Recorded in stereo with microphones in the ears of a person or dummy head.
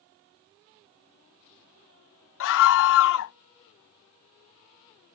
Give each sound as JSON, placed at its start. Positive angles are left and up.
{"t": 2.4, "sound": "a scream", "side_deg": 70}